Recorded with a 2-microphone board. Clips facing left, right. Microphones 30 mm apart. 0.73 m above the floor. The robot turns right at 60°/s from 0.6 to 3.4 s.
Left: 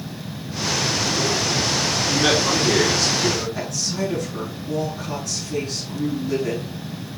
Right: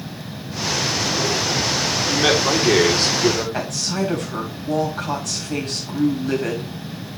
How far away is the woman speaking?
About 4.5 m.